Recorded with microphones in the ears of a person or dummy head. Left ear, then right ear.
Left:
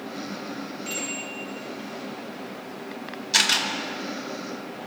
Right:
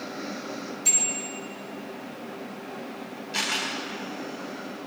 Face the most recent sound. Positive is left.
turn(degrees=55)  # may be behind; listen again after turning